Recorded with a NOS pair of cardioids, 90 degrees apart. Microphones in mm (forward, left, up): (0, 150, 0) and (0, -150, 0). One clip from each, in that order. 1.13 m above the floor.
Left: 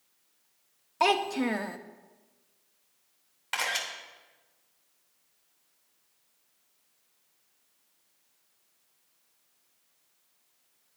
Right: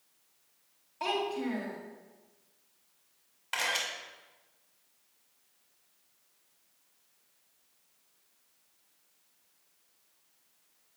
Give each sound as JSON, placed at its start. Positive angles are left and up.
{"t": 1.0, "sound": "a child speaking", "azimuth_deg": 70, "distance_m": 1.1}
{"t": 3.5, "sound": "a camera shutter", "azimuth_deg": 20, "distance_m": 3.0}